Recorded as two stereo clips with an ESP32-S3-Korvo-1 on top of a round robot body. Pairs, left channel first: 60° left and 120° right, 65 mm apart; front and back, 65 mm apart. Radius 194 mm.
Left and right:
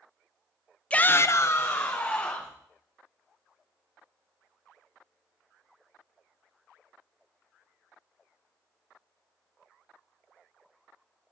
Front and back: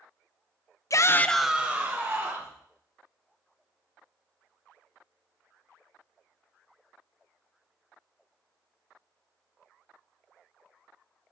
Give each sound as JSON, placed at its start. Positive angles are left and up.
{"t": 0.9, "sound": "a shout", "azimuth_deg": -10, "distance_m": 0.6}